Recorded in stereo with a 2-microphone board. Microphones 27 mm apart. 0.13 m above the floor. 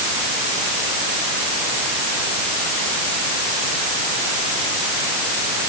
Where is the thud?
No thud in this recording.